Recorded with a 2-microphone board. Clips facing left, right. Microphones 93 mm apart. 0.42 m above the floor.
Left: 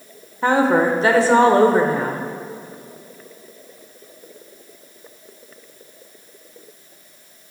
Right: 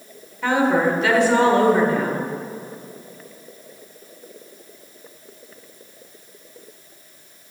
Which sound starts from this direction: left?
A woman speaking, at 0.4 s.